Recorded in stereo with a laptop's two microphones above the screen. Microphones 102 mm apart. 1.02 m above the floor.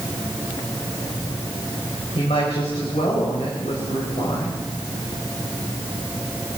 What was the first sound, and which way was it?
A woman speaking, 85° left.